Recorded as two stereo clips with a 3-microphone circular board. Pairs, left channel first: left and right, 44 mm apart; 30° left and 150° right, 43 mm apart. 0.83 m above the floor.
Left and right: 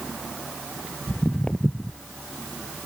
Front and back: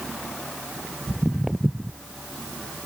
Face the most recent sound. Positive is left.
turn(degrees=145)